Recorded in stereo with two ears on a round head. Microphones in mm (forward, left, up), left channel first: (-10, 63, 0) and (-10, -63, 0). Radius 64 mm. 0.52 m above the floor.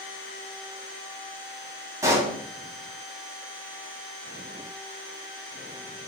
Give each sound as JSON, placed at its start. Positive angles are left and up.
{"t": 2.0, "sound": "a pop", "side_deg": -25, "distance_m": 3.0}